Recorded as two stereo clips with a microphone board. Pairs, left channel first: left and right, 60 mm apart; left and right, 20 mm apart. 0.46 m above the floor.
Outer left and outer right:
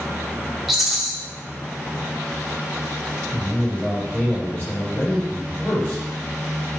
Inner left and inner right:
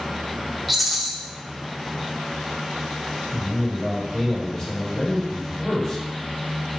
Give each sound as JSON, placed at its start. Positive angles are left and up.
{"t": 0.7, "sound": "a rattle", "side_deg": -5, "distance_m": 0.7}
{"t": 3.3, "sound": "a man speaking", "side_deg": 40, "distance_m": 1.8}